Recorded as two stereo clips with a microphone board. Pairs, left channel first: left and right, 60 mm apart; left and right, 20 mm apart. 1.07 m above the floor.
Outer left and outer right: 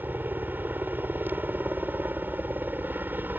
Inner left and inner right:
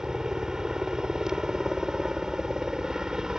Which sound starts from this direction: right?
A helicopter, at 0.0 s.